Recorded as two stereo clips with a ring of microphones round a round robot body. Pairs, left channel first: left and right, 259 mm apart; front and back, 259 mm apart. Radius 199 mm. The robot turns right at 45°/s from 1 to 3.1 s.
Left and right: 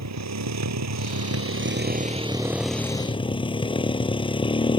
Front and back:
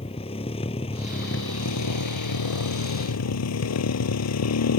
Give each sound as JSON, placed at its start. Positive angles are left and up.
{"t": 0.0, "sound": "a motorcycle", "azimuth_deg": -75}